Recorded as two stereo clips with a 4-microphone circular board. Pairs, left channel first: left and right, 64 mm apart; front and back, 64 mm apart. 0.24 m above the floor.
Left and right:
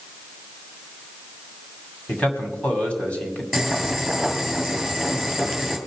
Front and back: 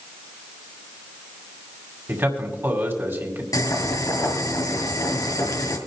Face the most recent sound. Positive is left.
turn(degrees=0)